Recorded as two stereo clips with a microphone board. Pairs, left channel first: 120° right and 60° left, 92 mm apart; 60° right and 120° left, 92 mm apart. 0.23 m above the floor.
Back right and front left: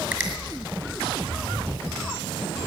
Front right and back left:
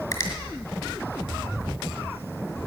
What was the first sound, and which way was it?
A finger snap, 5° right.